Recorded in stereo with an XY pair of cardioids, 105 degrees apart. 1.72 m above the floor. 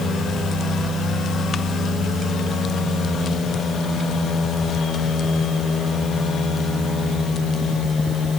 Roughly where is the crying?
No crying in this recording.